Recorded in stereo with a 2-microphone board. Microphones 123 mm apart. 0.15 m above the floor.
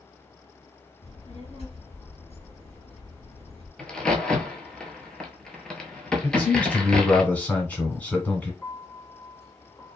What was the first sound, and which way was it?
A child speaking, 60° left (ahead or behind).